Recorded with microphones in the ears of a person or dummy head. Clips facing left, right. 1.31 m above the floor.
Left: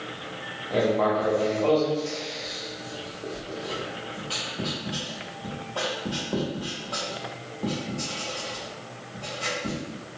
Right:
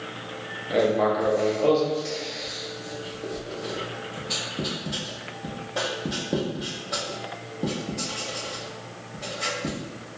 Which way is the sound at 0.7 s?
25° right (ahead or behind).